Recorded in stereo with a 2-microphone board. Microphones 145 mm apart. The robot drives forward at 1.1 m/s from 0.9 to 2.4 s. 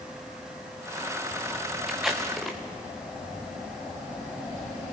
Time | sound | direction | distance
1.9 | tape being pulled | 5° right (ahead or behind) | 2 m